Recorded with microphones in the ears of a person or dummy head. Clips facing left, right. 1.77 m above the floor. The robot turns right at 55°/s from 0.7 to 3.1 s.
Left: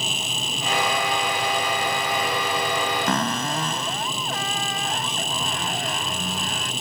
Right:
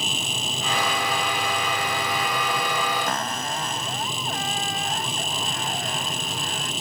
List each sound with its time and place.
3.1 s a cupboard door: 60° left (ahead or behind); by 6.7 s 55° left (ahead or behind)